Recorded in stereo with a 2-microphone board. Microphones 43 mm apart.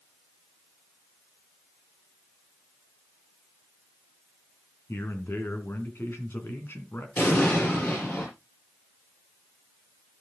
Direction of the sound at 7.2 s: 50° left (ahead or behind).